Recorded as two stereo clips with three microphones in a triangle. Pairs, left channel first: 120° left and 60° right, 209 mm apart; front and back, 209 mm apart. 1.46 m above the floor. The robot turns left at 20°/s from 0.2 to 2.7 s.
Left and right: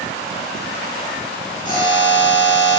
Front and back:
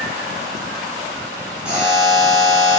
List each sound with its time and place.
1.6 s a buzzer: 100° left, 1.3 m; by 2.8 s 80° left, 1.3 m